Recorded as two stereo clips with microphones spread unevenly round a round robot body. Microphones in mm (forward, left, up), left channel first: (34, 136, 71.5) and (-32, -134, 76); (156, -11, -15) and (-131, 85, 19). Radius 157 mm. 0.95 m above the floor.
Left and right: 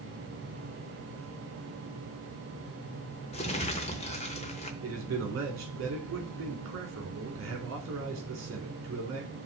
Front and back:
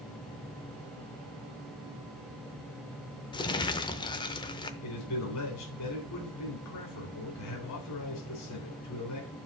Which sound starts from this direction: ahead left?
Crumpling, at 3.3 s.